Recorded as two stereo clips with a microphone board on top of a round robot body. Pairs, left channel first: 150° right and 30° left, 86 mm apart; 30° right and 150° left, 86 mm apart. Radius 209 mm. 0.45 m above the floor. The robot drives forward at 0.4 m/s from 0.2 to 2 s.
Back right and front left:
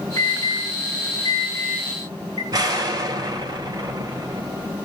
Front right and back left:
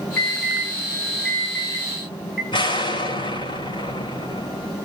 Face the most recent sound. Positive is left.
turn(degrees=-15)